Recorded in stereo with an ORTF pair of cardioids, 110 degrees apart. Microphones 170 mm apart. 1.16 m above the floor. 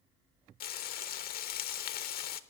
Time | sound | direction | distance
0.6 | frying | 60° left | 0.8 m